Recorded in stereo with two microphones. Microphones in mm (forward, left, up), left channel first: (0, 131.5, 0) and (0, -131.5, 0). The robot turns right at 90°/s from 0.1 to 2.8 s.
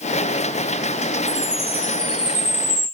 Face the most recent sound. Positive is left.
turn(degrees=-90)